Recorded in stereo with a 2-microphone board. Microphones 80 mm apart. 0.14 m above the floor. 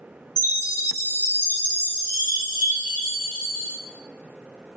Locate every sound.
0.4 s a chime: 30° right (ahead or behind), 1.1 m